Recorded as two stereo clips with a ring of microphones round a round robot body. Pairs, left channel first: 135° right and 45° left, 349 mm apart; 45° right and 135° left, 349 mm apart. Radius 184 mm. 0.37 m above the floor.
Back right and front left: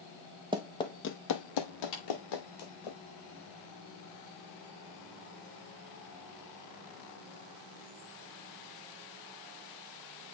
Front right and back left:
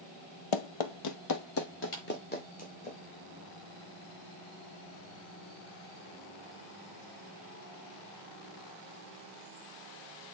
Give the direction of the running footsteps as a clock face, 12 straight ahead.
1 o'clock.